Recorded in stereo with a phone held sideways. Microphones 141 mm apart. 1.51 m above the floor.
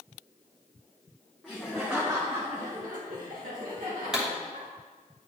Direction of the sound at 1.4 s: 5° left (ahead or behind).